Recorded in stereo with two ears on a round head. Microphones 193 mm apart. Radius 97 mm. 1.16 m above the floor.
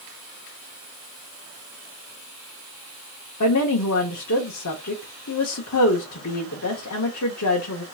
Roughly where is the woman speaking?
Left.